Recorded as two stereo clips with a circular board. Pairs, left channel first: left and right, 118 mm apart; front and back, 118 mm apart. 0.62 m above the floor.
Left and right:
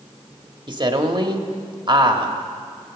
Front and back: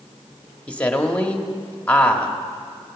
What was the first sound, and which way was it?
A woman speaking, 70° right.